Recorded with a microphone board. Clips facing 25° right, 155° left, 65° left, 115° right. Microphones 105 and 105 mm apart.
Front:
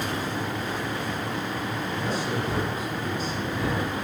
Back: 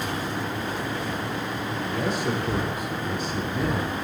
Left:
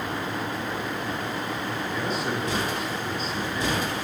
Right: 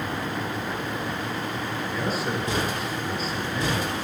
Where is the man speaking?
160° left, 5.5 m.